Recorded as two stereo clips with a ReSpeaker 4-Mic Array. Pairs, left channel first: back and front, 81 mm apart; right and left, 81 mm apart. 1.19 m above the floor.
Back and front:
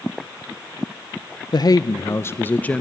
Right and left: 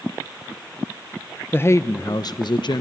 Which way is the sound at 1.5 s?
150° right.